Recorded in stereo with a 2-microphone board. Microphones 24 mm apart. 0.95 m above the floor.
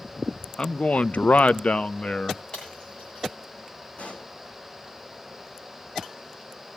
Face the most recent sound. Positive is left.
turn(degrees=60)  # may be behind; listen again after turning